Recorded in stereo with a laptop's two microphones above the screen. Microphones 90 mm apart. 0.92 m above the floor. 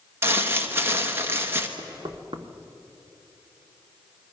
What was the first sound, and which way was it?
Crumpling, 25° right (ahead or behind).